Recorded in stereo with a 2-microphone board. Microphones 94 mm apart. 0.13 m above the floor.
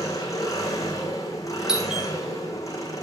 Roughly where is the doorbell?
Centre.